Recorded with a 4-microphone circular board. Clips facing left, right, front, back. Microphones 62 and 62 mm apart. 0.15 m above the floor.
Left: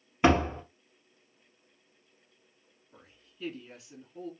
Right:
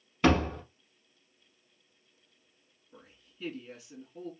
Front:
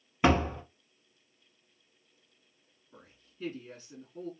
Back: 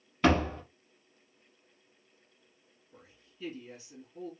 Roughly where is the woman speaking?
Ahead.